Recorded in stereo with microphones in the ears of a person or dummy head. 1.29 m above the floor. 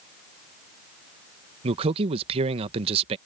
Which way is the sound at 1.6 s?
30° right (ahead or behind).